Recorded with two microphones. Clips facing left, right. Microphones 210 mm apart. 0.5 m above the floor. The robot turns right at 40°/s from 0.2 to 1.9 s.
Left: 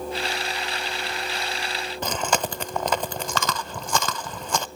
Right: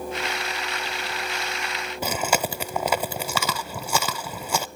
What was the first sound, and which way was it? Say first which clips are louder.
Chewing: right 1 dB; 10° right (ahead or behind).